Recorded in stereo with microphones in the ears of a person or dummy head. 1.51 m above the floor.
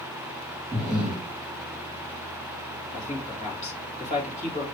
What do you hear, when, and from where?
0.7 s breathing: 5° right (ahead or behind), 1.8 m
2.9 s a man speaking: 40° left (ahead or behind), 2 m